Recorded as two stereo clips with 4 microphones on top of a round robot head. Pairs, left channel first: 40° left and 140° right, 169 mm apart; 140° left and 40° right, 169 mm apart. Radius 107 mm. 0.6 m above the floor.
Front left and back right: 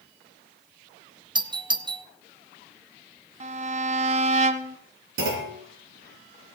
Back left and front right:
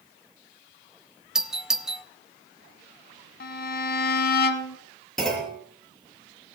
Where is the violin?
170° left, 1.2 m.